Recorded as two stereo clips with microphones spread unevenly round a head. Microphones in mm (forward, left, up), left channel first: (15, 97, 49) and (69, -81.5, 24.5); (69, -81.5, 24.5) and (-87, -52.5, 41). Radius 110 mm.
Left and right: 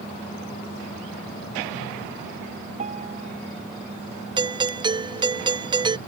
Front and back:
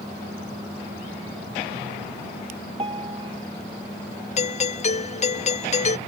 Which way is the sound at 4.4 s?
20° right.